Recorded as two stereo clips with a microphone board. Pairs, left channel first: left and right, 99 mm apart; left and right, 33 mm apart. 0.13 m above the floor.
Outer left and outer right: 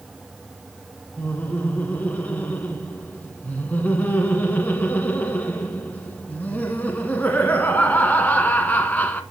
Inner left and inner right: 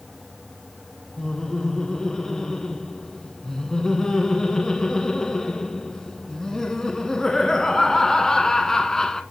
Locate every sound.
1.2 s laughter: 15° left (ahead or behind), 1.1 m